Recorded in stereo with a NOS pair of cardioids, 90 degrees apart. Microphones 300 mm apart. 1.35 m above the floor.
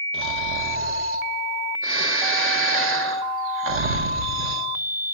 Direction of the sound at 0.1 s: 45° right.